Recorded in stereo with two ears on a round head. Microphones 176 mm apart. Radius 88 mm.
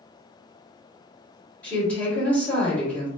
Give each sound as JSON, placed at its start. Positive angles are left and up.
{"t": 1.6, "sound": "a woman speaking", "side_deg": 10, "distance_m": 1.8}